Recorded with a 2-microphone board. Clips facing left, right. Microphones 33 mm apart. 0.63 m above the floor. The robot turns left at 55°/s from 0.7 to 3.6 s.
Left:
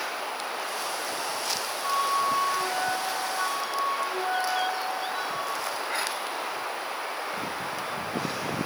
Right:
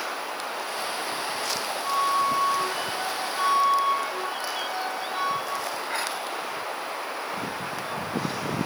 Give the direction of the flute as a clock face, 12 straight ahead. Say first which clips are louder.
Right 2 dB; 11 o'clock.